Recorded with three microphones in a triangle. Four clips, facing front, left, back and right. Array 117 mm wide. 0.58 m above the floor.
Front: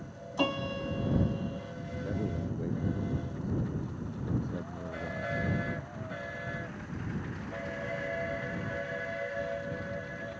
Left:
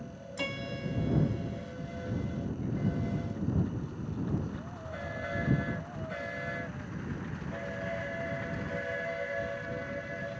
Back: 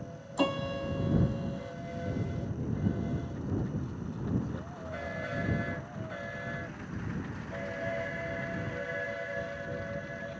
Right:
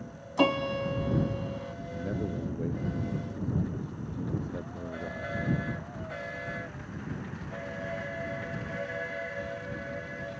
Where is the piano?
95° right.